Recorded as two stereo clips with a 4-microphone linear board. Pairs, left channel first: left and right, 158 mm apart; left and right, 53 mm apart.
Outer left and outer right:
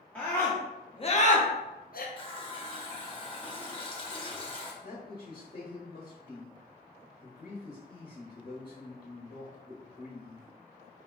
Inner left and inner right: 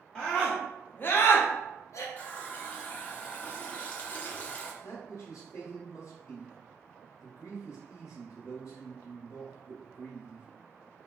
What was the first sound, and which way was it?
A scream, 10° left (ahead or behind).